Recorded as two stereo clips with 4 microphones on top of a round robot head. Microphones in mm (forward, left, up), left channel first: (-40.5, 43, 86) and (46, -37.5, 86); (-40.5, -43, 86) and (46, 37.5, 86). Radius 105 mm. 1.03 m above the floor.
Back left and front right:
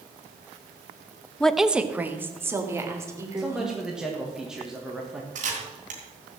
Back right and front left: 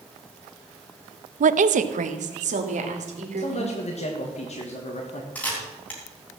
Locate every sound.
1.4 s a woman speaking: 55° left, 0.6 m; by 3.8 s 25° left, 3.5 m
3.4 s a man speaking: 130° right, 1.8 m
5.3 s a camera shutter: 60° right, 3.5 m